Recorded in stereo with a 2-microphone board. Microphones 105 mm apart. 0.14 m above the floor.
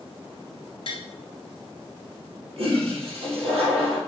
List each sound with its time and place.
0.9 s tapping: 60° left (ahead or behind), 0.9 m
2.6 s a toilet flushing: 70° right (ahead or behind), 3 m